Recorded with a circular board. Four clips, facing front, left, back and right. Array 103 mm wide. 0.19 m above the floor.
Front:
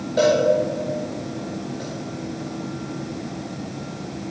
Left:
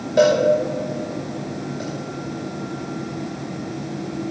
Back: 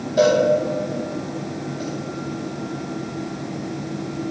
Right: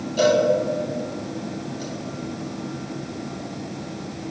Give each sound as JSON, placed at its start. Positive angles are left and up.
{"t": 0.2, "sound": "a cowbell", "azimuth_deg": 75, "distance_m": 6.0}